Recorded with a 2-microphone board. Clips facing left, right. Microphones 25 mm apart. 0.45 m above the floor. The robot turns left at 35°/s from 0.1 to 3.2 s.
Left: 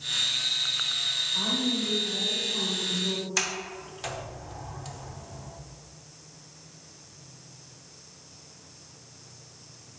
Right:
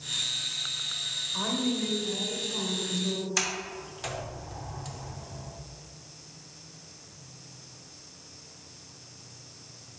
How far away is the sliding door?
About 0.6 m.